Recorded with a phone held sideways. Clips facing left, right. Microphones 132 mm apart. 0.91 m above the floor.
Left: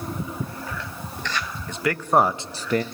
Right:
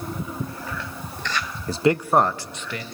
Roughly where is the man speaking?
Right.